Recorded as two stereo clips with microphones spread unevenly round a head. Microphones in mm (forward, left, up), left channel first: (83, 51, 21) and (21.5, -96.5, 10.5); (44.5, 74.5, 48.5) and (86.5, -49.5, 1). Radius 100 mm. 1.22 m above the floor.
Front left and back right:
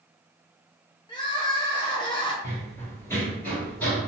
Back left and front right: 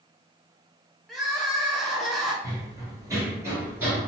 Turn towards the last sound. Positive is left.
turn(degrees=80)